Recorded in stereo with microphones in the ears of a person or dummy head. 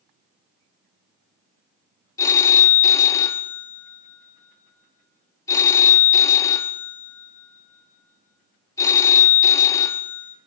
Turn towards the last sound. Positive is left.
turn(degrees=15)  # may be behind; listen again after turning